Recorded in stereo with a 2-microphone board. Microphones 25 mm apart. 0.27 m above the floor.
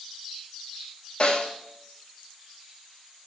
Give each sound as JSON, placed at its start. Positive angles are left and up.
{"t": 1.2, "sound": "a snare drum", "side_deg": 40, "distance_m": 0.8}